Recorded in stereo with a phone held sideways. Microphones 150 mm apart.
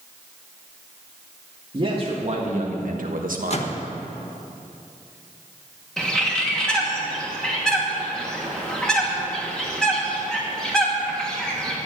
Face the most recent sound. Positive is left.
turn(degrees=5)  # may be behind; listen again after turning